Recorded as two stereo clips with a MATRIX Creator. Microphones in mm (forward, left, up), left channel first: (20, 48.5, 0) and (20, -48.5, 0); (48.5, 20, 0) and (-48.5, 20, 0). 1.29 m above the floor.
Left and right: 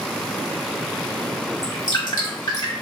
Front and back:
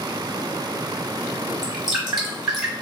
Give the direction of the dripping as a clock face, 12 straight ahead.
9 o'clock.